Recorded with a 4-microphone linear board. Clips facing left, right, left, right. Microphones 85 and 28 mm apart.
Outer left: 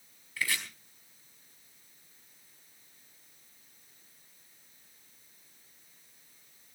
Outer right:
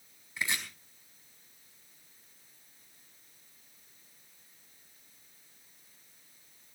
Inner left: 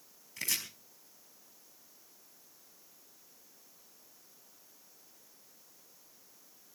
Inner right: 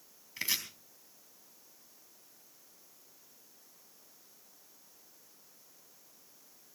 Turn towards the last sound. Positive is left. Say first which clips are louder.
# even, inner right 2 dB
turn(degrees=-20)  # may be behind; listen again after turning